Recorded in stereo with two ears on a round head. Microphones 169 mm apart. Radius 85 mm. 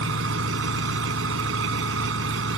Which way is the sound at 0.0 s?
80° right.